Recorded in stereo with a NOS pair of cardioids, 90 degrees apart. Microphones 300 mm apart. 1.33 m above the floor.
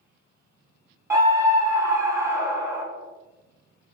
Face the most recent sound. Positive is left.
turn(degrees=-10)